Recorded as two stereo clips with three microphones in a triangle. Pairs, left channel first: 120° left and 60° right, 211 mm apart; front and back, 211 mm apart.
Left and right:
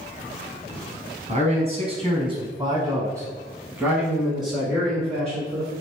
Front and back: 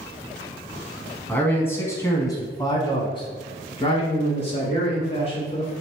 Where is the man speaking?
75° right, 1.7 m; by 5.7 s 40° left, 2 m.